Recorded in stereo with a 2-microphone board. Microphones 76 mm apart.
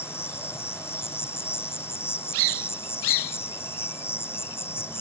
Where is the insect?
30° left (ahead or behind).